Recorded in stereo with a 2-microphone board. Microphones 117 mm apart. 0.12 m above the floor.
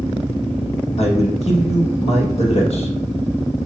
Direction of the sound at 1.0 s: 60° left (ahead or behind).